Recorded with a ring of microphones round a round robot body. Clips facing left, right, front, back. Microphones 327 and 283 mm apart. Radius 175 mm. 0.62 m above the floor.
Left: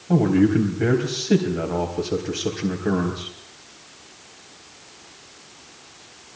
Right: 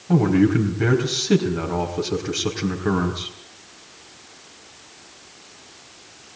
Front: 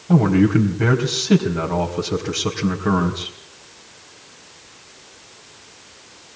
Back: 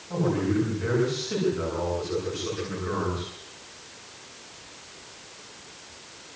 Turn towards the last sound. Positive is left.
turn(degrees=-20)